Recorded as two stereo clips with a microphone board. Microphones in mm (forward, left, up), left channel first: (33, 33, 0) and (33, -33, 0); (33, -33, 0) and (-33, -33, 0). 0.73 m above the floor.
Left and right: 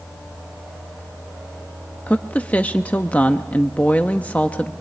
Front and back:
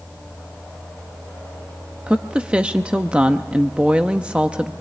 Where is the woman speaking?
125° left, 0.8 m.